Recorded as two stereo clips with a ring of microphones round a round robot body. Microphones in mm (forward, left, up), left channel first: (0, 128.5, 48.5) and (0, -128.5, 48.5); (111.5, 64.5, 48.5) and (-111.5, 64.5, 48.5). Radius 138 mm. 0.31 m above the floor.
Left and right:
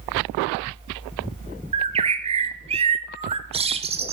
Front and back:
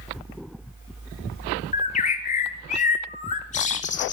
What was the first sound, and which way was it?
A bird, 35° right.